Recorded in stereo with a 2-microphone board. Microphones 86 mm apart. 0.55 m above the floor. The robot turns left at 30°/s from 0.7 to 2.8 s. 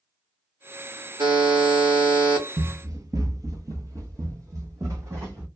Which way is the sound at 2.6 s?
35° right (ahead or behind).